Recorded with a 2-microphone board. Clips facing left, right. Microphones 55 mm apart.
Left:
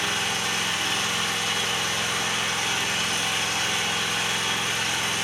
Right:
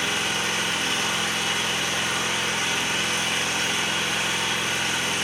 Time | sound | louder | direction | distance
0.0 | an engine running | right 1 dB | 70° right (ahead or behind) | 2 m